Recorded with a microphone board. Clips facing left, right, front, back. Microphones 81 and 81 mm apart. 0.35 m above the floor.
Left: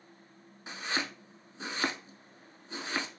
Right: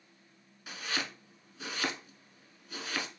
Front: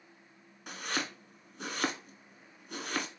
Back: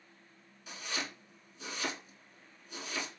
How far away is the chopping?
About 0.9 m.